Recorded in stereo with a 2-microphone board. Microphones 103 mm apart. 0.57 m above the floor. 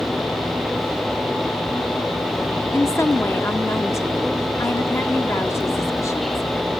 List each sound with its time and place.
2.7 s a woman speaking: 30° left (ahead or behind), 1.0 m